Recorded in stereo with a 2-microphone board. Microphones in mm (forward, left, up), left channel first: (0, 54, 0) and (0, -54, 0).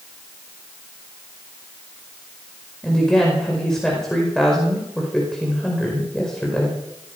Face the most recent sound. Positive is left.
turn(degrees=5)  # may be behind; listen again after turning